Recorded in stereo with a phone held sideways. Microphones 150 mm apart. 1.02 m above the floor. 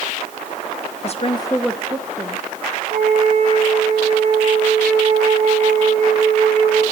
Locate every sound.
1.0 s a woman speaking: 45° left (ahead or behind), 0.9 m; by 2.5 s 35° right (ahead or behind), 1.5 m
2.9 s a flute: 65° right (ahead or behind), 7 m